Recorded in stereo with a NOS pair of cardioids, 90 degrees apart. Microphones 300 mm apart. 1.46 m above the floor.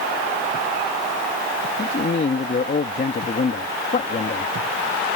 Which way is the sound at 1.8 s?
35° left.